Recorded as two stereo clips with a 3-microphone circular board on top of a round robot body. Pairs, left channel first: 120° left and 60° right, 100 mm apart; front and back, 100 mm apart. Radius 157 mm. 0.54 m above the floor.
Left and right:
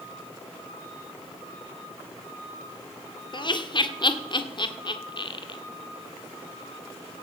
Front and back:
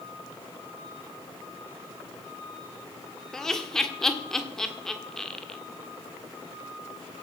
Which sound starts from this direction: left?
Laughter, at 3.3 s.